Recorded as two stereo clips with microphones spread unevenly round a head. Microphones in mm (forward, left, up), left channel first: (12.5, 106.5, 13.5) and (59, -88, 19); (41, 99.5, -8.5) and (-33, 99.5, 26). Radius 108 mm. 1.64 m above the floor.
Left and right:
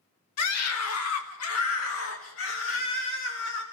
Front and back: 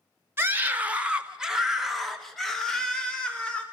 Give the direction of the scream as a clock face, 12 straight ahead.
8 o'clock.